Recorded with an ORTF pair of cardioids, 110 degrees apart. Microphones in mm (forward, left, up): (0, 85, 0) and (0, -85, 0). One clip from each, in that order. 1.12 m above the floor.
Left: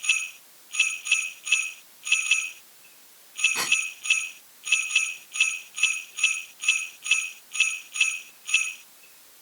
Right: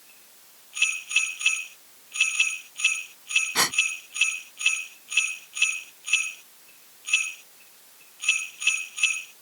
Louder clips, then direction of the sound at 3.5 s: Even; 40° right.